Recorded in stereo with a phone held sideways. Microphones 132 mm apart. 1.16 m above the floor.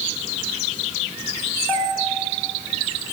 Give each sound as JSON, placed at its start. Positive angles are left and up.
{"t": 1.7, "sound": "a bell", "side_deg": 15, "distance_m": 4.0}